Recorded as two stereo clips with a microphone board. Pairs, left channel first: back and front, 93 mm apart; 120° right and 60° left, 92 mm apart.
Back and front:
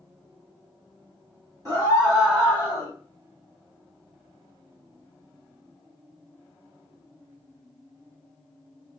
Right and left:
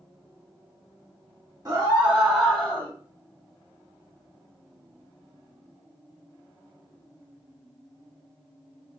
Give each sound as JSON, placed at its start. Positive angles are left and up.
{"t": 1.6, "sound": "a scream", "azimuth_deg": 30, "distance_m": 1.3}